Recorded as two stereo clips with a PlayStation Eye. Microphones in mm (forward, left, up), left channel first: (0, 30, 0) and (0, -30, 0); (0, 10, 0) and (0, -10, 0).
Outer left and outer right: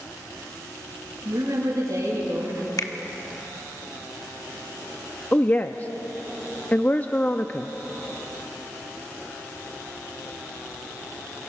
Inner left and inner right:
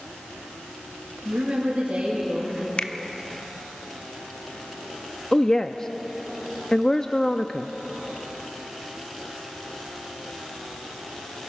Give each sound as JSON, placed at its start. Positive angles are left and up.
{"t": 1.2, "sound": "a woman speaking", "side_deg": -80, "distance_m": 9.0}
{"t": 2.8, "sound": "a finger snap", "side_deg": 70, "distance_m": 1.1}
{"t": 5.3, "sound": "a woman speaking", "side_deg": 25, "distance_m": 0.7}